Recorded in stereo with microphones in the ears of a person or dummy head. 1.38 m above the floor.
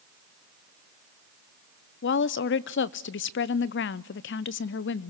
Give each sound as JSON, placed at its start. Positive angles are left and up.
{"t": 2.0, "sound": "a woman speaking", "side_deg": 55, "distance_m": 0.6}